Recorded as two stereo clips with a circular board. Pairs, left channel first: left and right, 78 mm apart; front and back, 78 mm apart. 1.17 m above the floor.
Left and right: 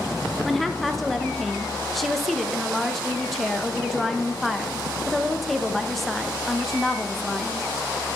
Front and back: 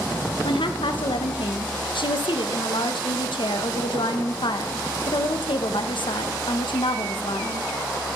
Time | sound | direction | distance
0.4 | a woman speaking | straight ahead | 0.7 m